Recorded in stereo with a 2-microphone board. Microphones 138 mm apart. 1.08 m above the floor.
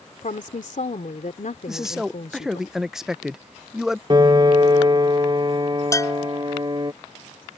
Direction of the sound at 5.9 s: 25° left (ahead or behind).